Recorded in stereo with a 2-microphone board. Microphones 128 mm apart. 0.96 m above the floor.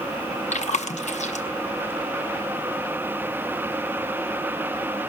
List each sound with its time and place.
0.5 s chewing: 65° left (ahead or behind), 0.7 m